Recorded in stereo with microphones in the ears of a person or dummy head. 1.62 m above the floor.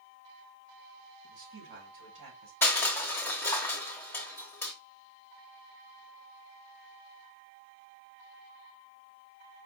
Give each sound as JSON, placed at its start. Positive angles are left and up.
{"t": 1.2, "sound": "a man speaking", "side_deg": -65, "distance_m": 2.0}
{"t": 2.6, "sound": "crushing", "side_deg": 10, "distance_m": 0.9}